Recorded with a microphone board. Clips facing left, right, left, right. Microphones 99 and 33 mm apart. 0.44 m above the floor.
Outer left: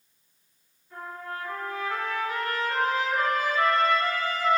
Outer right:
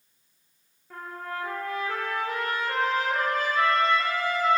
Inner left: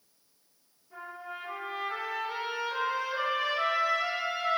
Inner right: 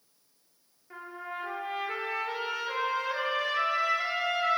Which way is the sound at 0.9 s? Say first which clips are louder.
Outer right 1 dB, inner right 2 dB; 80° right.